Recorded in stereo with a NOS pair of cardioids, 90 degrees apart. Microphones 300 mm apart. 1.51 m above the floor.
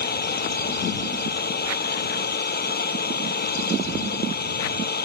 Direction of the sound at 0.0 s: 30° left.